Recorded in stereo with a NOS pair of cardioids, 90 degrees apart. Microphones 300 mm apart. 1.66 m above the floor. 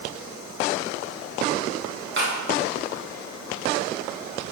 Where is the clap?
40° right, 6 m.